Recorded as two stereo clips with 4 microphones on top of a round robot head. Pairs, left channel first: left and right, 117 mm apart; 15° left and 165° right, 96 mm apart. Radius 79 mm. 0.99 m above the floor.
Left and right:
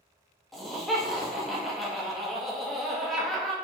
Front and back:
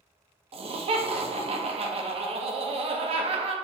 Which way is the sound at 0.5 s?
Straight behind.